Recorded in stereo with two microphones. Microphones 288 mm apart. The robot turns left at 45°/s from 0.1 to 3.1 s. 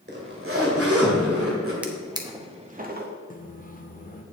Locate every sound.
0.1 s a zipper: 45° right, 1.8 m; by 1.7 s 120° right, 1.8 m
1.8 s a drawer: 5° right (ahead or behind), 0.9 m; by 3.1 s 35° right (ahead or behind), 0.9 m
3.3 s a microwave: 30° left (ahead or behind), 0.8 m